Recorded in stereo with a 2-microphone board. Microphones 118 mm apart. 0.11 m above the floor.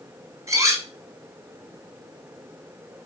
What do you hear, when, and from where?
0.5 s cutlery clinking: 30° right (ahead or behind), 0.9 m